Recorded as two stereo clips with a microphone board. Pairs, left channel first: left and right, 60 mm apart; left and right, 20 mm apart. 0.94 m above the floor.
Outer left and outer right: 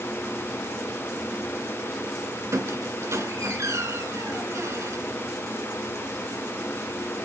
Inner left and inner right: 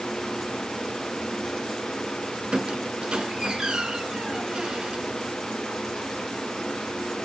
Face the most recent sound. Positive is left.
turn(degrees=-50)  # may be behind; listen again after turning